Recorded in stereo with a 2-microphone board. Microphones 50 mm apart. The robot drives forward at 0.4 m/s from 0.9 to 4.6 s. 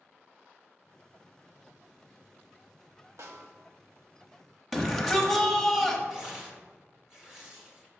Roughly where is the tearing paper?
Centre.